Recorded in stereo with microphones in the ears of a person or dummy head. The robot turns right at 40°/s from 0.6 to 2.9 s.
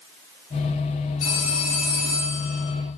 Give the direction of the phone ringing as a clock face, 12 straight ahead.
10 o'clock.